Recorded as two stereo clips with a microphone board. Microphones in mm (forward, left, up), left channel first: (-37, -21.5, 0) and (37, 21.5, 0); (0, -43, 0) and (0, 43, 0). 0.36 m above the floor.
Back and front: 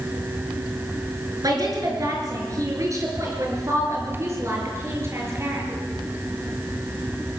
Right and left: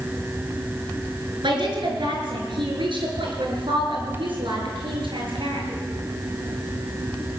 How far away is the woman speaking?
About 5.5 m.